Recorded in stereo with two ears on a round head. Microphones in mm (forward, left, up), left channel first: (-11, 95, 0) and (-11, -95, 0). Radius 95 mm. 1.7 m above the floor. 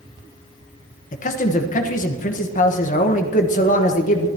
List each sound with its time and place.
1.1 s a man speaking: 40° left (ahead or behind), 1.2 m